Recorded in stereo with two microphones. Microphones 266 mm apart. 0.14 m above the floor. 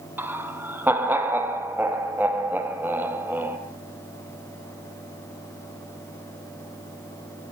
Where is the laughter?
10° right (ahead or behind), 3.5 m.